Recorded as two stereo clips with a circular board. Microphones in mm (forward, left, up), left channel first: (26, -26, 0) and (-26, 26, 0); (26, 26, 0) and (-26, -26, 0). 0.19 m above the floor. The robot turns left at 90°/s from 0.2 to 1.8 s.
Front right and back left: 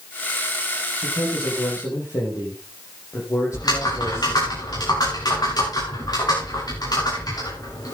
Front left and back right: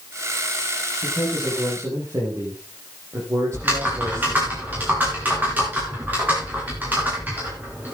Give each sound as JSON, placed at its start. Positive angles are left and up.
{"t": 1.0, "sound": "a man speaking", "azimuth_deg": -20, "distance_m": 7.5}
{"t": 3.5, "sound": "typing on a keyboard", "azimuth_deg": -70, "distance_m": 8.5}